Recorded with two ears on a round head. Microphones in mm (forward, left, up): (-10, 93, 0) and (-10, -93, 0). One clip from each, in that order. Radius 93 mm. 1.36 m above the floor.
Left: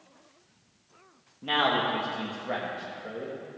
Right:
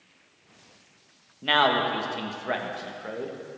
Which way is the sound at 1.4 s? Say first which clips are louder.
Right 4 dB; 60° right (ahead or behind).